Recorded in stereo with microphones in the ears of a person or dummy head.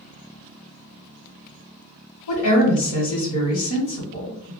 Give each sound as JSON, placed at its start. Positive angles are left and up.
{"t": 2.3, "sound": "a woman speaking", "side_deg": 75, "distance_m": 1.3}